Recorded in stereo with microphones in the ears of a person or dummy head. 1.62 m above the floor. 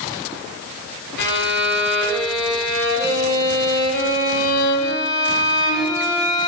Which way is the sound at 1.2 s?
65° left (ahead or behind).